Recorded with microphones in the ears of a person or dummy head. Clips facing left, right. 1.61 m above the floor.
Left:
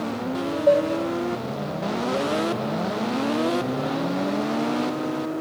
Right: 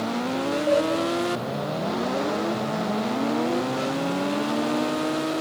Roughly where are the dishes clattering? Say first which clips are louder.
Left 4 dB; left.